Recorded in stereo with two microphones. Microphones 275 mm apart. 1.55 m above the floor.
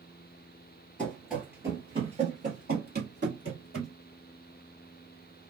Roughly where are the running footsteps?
Centre.